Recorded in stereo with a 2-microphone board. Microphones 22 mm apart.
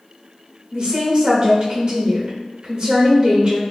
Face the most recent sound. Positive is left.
turn(degrees=-30)  # may be behind; listen again after turning